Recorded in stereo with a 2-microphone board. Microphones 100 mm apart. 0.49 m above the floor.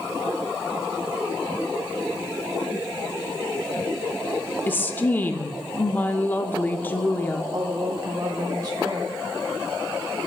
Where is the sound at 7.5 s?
40° right (ahead or behind), 0.8 m.